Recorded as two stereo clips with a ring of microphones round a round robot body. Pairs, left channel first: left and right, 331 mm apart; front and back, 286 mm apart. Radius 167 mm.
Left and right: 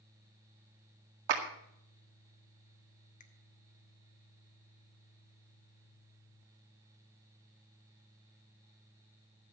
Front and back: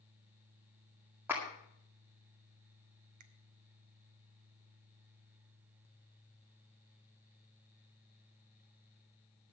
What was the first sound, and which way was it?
A clap, 95° right.